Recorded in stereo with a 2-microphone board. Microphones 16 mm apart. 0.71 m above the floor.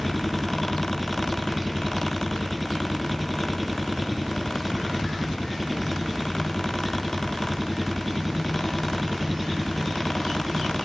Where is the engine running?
5° right (ahead or behind).